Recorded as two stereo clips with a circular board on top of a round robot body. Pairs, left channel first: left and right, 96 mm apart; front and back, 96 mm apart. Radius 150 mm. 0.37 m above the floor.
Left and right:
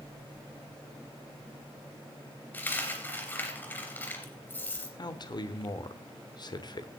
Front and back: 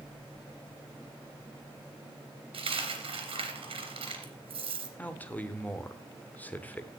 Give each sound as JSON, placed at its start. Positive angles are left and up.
{"t": 2.5, "sound": "a dropped coin", "azimuth_deg": 160, "distance_m": 3.0}
{"t": 5.0, "sound": "a man speaking", "azimuth_deg": 70, "distance_m": 1.4}